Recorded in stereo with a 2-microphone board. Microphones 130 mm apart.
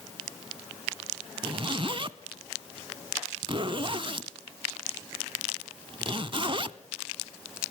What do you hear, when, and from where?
1.4 s a zipper: 40° right (ahead or behind), 0.5 m